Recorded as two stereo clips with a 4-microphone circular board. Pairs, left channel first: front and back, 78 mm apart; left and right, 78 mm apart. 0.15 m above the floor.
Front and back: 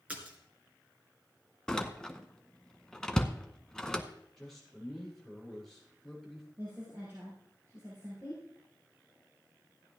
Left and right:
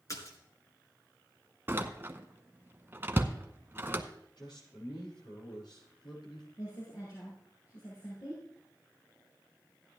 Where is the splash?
110° left, 2.5 m.